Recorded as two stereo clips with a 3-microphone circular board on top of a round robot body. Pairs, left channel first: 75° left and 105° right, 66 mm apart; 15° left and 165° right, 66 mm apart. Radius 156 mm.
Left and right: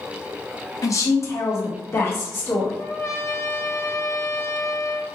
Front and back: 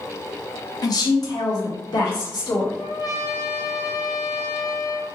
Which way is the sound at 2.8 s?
25° left.